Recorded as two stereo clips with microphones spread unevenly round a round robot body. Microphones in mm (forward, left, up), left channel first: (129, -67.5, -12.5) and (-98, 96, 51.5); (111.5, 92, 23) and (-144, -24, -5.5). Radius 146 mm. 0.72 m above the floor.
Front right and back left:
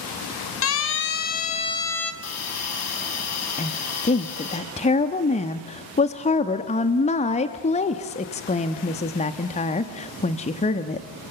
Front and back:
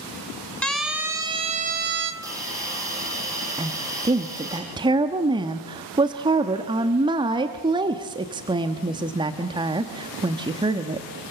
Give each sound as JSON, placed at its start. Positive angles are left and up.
{"t": 0.6, "sound": "a siren", "azimuth_deg": -65, "distance_m": 2.5}
{"t": 2.2, "sound": "a hiss", "azimuth_deg": -75, "distance_m": 6.0}
{"t": 3.6, "sound": "a woman speaking", "azimuth_deg": -90, "distance_m": 0.9}